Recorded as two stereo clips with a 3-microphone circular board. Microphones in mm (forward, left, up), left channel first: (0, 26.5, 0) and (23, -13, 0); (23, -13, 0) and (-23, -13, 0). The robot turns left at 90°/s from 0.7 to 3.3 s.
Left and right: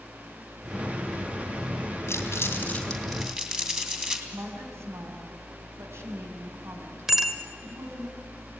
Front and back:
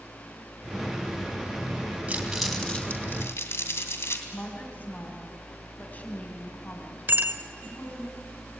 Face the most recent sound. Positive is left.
turn(degrees=-140)